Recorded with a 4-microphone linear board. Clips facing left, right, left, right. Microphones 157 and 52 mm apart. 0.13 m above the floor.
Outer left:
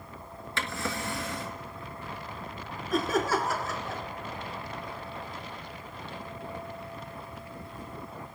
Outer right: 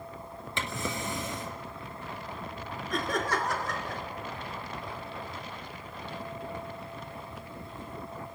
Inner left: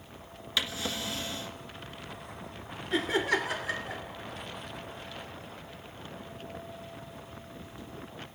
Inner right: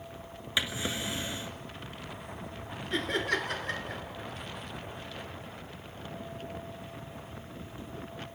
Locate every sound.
0.6 s a drawer: 20° right (ahead or behind), 1.2 m
2.9 s laughter: 5° left (ahead or behind), 1.5 m